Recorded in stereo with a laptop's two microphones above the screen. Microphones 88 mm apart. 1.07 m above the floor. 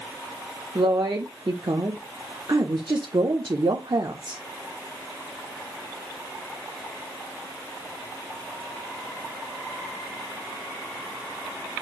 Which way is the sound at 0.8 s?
55° right (ahead or behind).